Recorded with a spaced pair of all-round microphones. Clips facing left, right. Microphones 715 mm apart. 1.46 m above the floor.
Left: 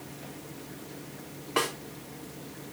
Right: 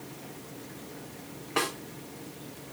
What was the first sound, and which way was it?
A snare drum, 5° left (ahead or behind).